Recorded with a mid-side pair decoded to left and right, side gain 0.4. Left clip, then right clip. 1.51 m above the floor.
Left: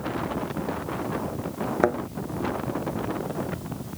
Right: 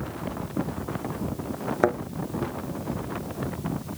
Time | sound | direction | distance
1.8 | a thud | straight ahead | ?